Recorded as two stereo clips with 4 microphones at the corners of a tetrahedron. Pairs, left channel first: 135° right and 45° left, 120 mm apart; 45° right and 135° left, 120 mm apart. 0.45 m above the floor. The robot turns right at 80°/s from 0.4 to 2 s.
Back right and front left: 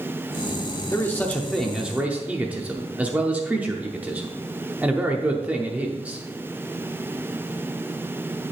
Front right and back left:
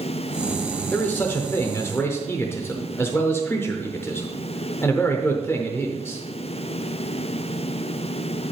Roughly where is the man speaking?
Right.